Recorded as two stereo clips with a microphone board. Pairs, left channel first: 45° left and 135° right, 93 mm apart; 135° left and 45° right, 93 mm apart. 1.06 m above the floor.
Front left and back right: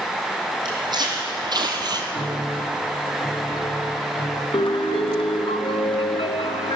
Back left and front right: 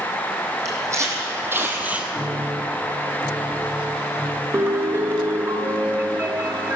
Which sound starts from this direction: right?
Footsteps, at 0.7 s.